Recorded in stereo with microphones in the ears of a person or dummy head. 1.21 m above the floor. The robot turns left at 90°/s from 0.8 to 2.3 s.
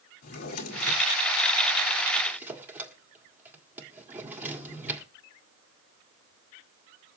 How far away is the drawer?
About 1.6 m.